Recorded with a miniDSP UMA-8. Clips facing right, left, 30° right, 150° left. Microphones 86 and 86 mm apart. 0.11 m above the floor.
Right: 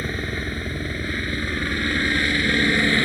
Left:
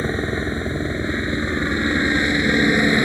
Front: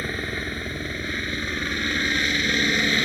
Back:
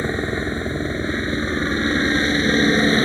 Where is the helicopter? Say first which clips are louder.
Left 5 dB, back 7 dB; 120° left; by 3.1 s 145° left.